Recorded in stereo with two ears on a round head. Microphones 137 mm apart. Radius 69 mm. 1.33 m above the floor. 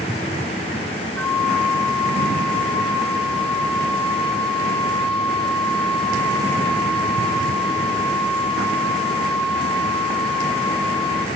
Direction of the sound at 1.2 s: 5° left (ahead or behind).